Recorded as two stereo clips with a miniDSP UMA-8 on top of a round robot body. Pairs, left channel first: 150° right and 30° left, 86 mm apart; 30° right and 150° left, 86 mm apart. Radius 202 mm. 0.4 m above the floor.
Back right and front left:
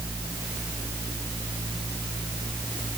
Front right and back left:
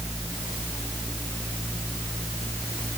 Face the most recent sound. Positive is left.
No sound to turn to.